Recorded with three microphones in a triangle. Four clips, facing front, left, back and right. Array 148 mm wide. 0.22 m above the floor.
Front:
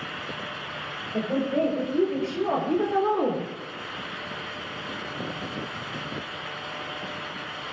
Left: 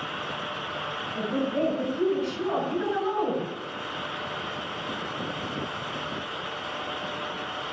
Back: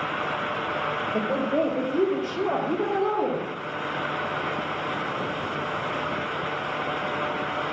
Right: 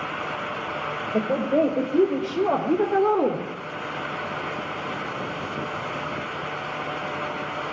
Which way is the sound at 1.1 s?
110° right.